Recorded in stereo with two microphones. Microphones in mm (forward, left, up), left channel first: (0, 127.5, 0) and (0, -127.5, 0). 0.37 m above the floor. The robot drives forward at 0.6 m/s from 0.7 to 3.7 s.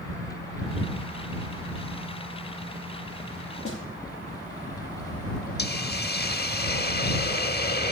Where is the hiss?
40° left (ahead or behind), 0.6 m.